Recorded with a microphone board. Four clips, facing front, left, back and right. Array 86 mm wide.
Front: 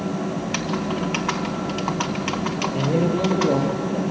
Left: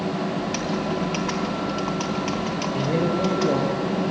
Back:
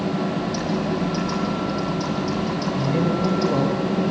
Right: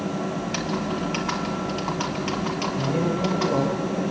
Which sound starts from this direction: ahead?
Typing on a keyboard, at 0.4 s.